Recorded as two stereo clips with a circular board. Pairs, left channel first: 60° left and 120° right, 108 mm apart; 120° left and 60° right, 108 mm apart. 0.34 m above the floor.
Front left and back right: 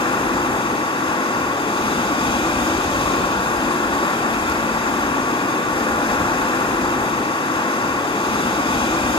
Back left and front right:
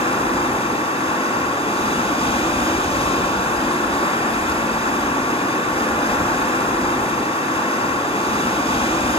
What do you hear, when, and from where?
0.0 s running water: 90° left, 3.5 m